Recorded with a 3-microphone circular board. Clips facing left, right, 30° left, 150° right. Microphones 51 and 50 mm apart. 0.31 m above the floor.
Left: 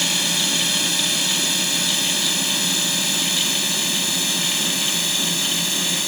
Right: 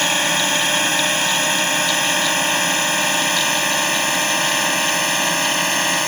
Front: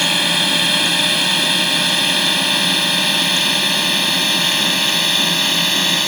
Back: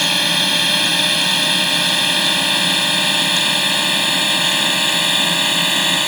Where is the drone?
55° right; by 6.1 s 70° right.